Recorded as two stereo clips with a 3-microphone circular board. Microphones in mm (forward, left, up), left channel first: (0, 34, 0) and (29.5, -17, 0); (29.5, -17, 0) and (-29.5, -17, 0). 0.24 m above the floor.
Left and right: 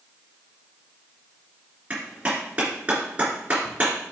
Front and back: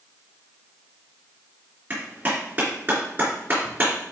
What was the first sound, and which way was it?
A clap, 125° right.